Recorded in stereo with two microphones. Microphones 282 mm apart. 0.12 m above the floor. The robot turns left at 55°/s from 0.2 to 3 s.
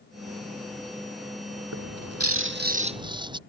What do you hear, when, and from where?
1.7 s a bird: 90° right; by 3.4 s 165° right